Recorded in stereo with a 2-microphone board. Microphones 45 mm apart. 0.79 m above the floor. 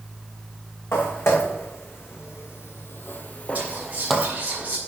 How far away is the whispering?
About 4.5 m.